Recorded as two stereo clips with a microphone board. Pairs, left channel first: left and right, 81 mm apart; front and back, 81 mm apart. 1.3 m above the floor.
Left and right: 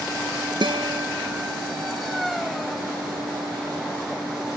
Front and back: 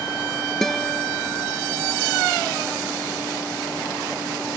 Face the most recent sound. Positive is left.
turn(degrees=-85)